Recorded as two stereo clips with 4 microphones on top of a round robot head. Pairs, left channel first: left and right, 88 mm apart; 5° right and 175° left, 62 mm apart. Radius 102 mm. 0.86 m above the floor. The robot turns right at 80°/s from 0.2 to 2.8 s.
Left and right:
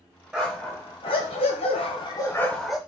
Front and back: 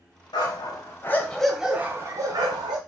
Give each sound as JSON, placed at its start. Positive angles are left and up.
{"t": 0.3, "sound": "a dog barking", "azimuth_deg": -10, "distance_m": 1.4}